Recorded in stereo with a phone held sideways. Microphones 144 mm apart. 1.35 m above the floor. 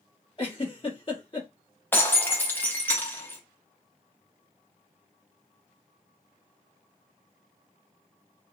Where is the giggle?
40° left (ahead or behind), 1.1 m.